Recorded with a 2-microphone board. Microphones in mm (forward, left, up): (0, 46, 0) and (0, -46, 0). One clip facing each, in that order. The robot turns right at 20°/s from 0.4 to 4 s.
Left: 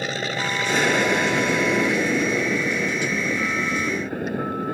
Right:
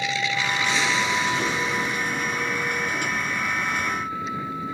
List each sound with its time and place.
0.0 s an aircraft: 45° left; by 4.8 s 115° left